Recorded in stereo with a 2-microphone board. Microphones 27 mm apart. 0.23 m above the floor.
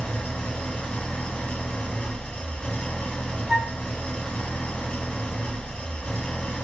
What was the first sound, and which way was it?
An engine running, 50° left (ahead or behind).